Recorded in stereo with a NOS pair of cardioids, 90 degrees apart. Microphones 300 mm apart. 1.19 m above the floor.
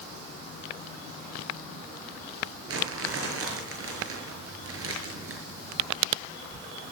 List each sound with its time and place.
2.7 s crumpling: 50° right, 6.5 m